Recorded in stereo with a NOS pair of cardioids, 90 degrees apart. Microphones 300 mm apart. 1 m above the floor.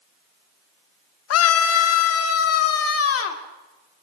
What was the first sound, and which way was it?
A scream, 55° left.